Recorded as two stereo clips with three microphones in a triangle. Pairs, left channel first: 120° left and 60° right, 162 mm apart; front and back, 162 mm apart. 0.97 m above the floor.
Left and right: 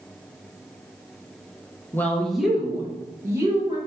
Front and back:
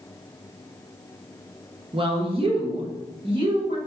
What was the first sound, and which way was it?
A woman speaking, 175° right.